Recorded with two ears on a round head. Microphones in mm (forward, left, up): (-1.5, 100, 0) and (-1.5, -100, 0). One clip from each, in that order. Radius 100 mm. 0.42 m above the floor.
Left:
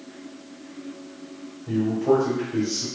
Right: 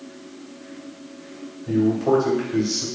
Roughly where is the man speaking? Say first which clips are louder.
Right 2 dB; right.